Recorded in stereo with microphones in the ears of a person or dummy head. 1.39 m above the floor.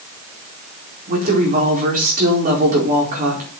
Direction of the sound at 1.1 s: 45° right (ahead or behind).